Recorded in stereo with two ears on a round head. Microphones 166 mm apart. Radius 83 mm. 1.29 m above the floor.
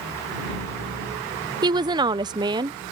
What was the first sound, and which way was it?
A woman speaking, 25° right (ahead or behind).